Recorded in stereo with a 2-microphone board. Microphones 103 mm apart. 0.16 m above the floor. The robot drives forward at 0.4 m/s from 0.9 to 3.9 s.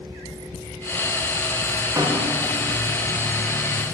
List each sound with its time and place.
2.0 s a snare drum: 30° right (ahead or behind), 8.5 m